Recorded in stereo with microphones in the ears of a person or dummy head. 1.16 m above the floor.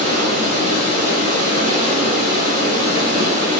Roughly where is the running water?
Right.